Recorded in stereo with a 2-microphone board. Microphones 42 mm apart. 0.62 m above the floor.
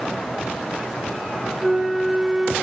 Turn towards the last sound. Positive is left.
turn(degrees=-5)  # may be behind; listen again after turning